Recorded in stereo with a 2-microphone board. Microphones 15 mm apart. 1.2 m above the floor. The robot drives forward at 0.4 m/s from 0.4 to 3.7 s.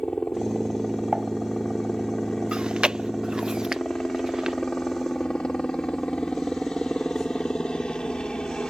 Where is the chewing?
80° right; by 4.6 s 45° right (ahead or behind).